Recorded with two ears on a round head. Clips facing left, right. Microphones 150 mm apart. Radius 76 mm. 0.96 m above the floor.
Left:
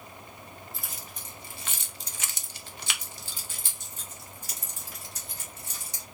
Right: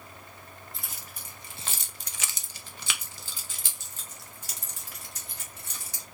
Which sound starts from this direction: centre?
Keys jangling, at 0.7 s.